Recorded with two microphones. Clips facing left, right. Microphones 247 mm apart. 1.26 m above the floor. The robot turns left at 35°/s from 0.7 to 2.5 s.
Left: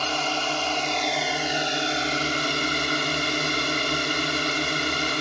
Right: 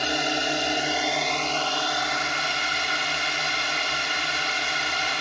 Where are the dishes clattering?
I don't hear dishes clattering.